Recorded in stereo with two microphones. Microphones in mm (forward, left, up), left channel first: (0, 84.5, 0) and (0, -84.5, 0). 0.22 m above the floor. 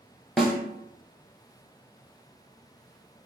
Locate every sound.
0.4 s a snare drum: 5° right (ahead or behind), 0.7 m